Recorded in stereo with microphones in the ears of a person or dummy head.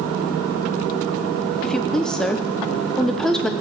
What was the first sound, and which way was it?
A woman speaking, 5° left (ahead or behind).